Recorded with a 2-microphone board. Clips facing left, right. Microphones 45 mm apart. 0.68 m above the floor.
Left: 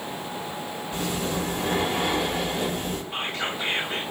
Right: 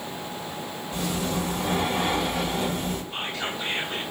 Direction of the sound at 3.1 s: 45° left (ahead or behind).